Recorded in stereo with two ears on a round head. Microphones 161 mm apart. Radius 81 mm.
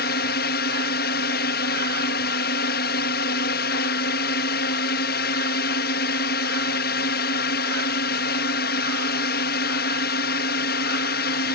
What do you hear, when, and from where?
0.0 s a drone: 60° left (ahead or behind)